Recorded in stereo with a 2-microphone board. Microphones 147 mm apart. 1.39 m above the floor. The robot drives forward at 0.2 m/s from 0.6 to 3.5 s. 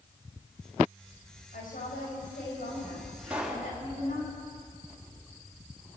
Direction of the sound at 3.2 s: 10° right (ahead or behind).